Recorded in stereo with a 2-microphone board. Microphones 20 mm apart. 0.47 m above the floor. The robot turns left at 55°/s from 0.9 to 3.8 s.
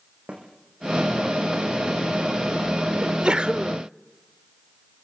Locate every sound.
0.3 s a snare drum: 75° right (ahead or behind), 6.5 m
3.0 s a sneeze: 65° right, 1.0 m; by 3.8 s 110° right, 1.0 m